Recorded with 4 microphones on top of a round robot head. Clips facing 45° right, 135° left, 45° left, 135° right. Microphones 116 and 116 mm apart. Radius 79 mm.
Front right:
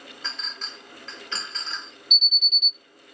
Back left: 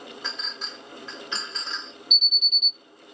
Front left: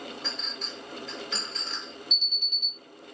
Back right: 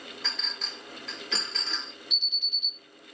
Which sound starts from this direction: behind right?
A clink, at 0.2 s.